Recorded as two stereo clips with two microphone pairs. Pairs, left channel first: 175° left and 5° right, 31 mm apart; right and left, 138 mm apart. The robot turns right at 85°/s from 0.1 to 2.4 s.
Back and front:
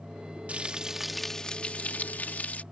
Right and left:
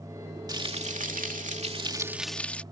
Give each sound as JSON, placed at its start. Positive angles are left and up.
{"t": 0.5, "sound": "frying", "azimuth_deg": 30}